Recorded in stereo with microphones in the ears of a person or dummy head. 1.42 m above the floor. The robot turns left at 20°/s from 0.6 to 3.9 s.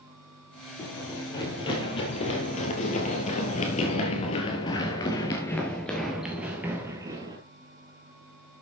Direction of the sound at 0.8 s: 15° left (ahead or behind).